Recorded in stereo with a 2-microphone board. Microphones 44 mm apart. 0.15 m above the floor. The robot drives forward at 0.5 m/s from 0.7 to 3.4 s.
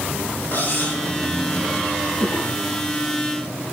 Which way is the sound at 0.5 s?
50° left (ahead or behind).